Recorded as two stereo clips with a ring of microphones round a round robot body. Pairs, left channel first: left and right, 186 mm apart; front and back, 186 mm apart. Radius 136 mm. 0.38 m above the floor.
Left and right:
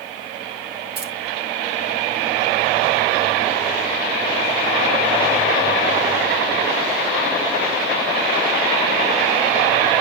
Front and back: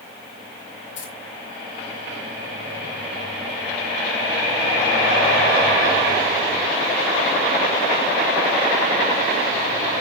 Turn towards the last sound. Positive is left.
turn(degrees=-60)